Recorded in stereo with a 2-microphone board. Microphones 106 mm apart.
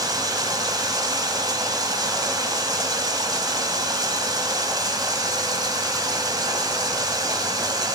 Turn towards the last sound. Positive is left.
turn(degrees=-40)  # may be behind; listen again after turning